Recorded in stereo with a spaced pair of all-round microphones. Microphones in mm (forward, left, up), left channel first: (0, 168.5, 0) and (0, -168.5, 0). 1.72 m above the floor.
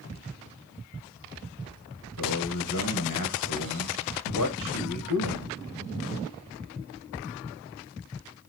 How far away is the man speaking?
About 1.9 m.